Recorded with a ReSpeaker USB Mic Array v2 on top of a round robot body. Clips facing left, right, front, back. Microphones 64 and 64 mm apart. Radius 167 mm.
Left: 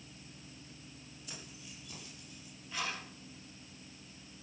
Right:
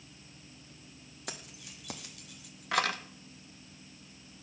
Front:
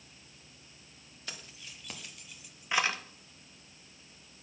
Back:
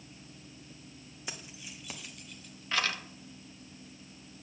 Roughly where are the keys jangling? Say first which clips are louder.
Right 6 dB, back 2 dB; right.